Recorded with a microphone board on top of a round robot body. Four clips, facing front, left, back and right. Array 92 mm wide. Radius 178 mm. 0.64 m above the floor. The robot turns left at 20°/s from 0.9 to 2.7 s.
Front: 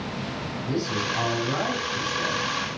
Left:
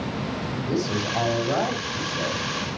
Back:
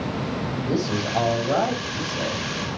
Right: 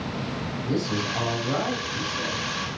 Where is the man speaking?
165° left, 6 m; by 2.4 s 135° left, 6 m.